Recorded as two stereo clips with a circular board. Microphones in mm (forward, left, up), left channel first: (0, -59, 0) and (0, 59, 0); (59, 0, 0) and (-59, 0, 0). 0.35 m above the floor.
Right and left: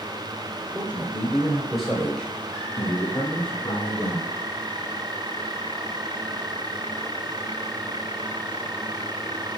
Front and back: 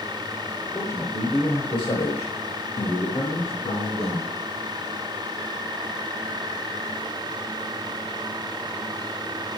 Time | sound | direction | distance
0.8 | a man speaking | 50° left | 0.9 m